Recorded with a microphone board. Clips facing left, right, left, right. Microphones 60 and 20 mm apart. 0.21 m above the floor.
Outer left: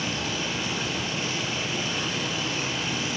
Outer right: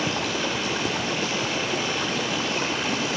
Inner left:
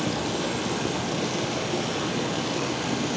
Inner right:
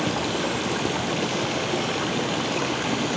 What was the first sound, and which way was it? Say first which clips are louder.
Running water: outer right 4 dB, inner right 2 dB; 55° right (ahead or behind).